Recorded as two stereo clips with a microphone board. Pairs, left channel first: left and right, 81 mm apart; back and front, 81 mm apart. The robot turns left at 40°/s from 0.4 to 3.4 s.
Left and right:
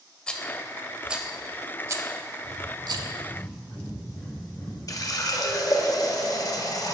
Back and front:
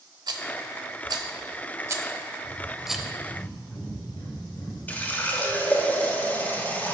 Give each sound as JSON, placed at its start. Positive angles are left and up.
{"t": 0.3, "sound": "a rattle", "azimuth_deg": 15, "distance_m": 0.6}
{"t": 2.4, "sound": "breathing", "azimuth_deg": -165, "distance_m": 1.8}
{"t": 4.9, "sound": "a running tap", "azimuth_deg": 115, "distance_m": 0.7}